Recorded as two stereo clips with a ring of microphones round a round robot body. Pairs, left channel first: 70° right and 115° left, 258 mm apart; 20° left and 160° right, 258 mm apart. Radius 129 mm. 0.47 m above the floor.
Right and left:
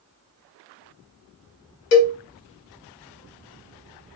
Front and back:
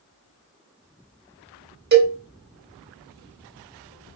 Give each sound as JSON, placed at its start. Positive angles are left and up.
{"t": 1.9, "sound": "a cowbell", "azimuth_deg": -105, "distance_m": 0.8}